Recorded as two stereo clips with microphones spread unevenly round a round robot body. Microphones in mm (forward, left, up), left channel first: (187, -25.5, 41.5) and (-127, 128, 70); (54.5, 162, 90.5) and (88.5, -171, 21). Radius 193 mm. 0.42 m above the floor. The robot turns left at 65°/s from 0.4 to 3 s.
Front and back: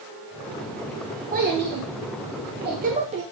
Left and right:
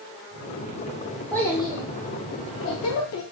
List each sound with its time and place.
1.3 s a child speaking: 155° right, 0.6 m; by 3.2 s 95° left, 0.6 m